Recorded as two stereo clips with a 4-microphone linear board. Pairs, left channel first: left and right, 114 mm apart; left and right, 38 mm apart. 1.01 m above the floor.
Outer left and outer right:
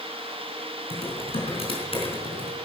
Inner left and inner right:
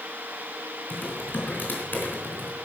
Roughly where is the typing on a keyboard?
Left.